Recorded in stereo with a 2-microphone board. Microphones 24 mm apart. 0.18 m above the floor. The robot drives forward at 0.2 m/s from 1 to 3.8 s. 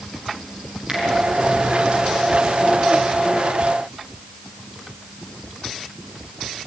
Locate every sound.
0.9 s a finger snap: 35° right (ahead or behind), 6.5 m